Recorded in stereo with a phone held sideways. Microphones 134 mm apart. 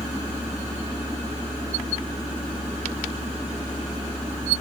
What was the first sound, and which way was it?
A fan, 35° left (ahead or behind).